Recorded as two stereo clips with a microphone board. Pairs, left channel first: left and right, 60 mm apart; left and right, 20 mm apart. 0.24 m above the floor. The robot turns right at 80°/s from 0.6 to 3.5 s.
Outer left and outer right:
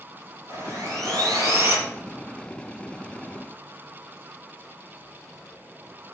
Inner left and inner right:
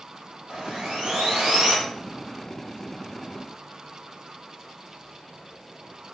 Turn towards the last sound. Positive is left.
turn(degrees=110)